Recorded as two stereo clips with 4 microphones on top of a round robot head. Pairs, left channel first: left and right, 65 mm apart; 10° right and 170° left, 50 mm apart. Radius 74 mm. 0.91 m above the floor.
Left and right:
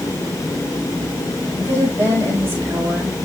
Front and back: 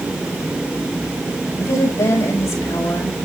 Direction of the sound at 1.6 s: 25° right.